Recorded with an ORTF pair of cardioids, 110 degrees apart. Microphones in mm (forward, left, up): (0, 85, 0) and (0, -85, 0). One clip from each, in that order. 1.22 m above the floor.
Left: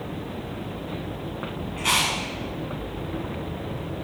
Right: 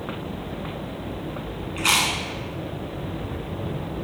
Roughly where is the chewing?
Ahead right.